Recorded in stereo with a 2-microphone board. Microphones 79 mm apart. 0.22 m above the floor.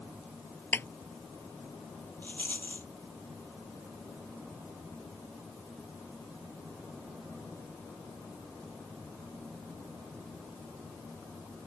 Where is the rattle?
25° left (ahead or behind).